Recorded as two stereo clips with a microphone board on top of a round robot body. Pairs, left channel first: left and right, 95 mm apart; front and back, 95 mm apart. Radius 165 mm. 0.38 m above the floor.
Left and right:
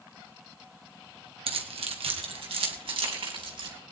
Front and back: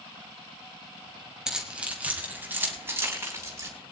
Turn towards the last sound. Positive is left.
turn(degrees=-120)